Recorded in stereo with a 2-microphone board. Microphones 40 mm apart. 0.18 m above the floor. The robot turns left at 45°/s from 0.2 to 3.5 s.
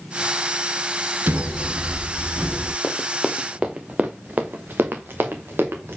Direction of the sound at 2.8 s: 25° left (ahead or behind).